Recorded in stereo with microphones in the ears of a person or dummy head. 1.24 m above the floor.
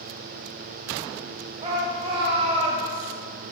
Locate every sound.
1.6 s a shout: 30° right (ahead or behind), 0.7 m